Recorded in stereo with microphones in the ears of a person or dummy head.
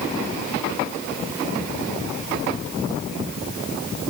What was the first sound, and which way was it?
Only background noise.